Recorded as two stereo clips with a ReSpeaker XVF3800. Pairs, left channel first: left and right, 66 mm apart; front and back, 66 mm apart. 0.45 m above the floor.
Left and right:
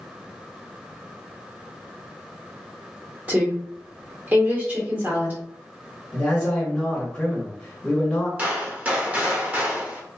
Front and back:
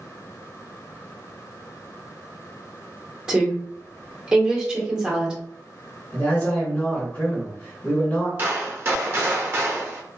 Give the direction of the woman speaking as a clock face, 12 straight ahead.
4 o'clock.